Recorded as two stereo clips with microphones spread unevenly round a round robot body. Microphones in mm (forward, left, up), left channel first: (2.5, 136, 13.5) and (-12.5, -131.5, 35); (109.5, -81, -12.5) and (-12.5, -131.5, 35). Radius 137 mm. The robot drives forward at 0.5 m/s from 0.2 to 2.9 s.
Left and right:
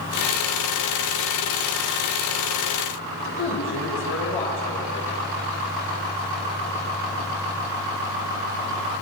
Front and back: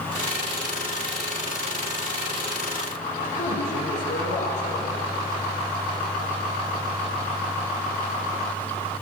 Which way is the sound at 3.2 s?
45° left.